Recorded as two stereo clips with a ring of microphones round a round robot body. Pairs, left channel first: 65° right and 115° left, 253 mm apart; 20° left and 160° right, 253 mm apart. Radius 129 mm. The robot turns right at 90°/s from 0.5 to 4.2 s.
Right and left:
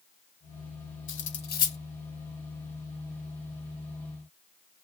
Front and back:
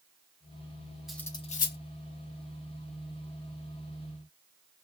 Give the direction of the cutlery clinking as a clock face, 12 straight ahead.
2 o'clock.